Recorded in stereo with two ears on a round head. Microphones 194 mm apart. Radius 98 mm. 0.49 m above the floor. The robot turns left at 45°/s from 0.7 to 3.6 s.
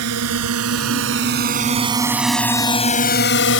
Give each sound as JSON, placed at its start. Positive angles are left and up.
{"t": 0.0, "sound": "a drone", "side_deg": -80}